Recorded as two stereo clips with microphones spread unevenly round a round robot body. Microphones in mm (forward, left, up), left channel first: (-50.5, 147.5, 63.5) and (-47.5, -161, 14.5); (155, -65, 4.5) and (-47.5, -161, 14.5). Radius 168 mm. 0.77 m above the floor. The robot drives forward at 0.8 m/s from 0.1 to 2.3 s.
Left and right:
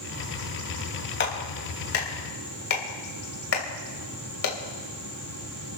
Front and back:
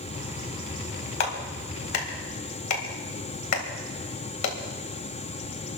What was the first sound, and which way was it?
A clap, 30° left.